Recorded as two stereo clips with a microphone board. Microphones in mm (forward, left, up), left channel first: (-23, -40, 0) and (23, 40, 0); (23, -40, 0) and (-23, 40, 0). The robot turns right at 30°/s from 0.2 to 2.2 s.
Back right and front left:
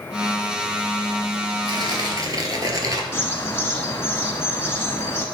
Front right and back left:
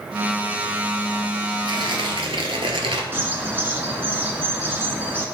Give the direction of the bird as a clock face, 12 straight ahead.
6 o'clock.